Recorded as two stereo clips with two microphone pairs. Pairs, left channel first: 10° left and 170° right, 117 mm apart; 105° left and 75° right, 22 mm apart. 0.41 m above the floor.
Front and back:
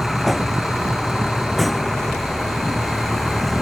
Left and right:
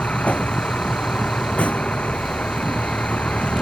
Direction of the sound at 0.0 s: 100° left.